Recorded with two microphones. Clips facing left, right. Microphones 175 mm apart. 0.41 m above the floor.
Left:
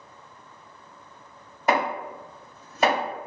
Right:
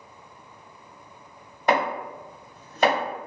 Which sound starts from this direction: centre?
Chopping, at 1.7 s.